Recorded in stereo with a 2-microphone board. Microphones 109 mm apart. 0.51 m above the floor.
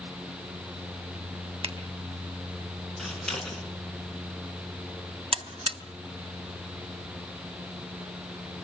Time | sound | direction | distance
1.6 | a finger snap | 65° right (ahead or behind) | 3.5 m
3.0 | scissors | 5° left (ahead or behind) | 5 m
5.3 | a buzzer | 60° right (ahead or behind) | 1.2 m